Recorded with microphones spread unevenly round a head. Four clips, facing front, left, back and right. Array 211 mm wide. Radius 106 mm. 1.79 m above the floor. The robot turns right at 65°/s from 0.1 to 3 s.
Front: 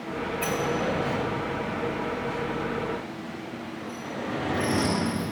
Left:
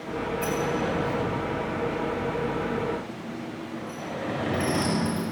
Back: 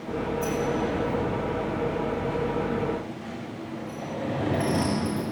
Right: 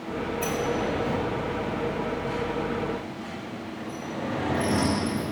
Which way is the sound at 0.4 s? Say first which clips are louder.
Even, front 1 dB; 20° right.